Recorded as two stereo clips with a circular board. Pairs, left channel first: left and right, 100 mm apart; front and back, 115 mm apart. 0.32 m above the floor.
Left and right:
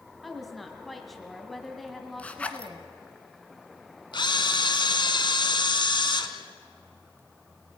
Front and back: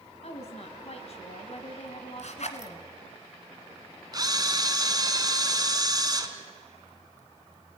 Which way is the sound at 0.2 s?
Straight ahead.